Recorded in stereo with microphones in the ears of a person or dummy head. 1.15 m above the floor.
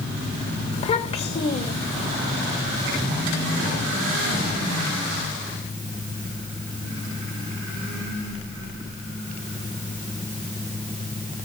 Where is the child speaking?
35° left (ahead or behind), 3 m.